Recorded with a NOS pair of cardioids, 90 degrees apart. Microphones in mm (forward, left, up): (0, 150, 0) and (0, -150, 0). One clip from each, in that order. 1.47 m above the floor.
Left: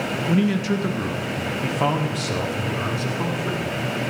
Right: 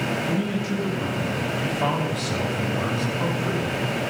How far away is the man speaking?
About 1.8 m.